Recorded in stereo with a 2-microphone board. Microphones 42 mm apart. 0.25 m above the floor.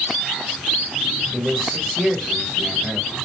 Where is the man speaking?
25° right (ahead or behind), 1.0 m.